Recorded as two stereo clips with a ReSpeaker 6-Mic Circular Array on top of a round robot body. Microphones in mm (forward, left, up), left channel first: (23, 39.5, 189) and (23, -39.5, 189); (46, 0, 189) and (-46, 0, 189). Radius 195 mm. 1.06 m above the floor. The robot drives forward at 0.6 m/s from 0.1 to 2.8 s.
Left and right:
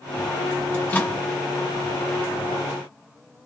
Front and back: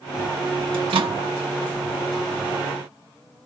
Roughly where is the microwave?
Behind left.